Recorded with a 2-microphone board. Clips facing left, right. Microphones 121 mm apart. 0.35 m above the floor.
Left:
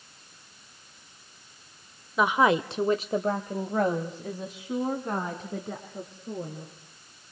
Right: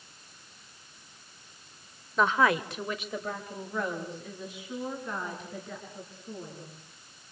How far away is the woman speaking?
About 0.9 m.